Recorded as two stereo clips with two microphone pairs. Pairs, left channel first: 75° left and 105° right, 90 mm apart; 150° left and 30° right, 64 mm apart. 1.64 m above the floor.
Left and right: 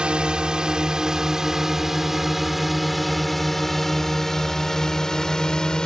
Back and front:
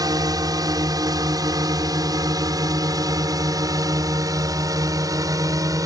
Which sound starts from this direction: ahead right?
A drone, at 0.0 s.